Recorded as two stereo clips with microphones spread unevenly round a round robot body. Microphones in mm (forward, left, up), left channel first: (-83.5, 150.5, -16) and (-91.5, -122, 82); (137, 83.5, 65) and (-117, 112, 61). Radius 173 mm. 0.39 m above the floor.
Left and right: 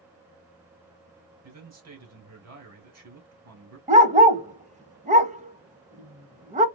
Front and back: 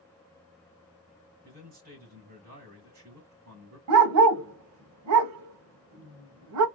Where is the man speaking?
130° right, 3 m.